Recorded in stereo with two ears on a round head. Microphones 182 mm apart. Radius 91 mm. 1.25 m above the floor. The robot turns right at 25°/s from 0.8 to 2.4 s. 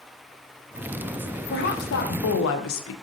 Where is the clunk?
No clunk in this recording.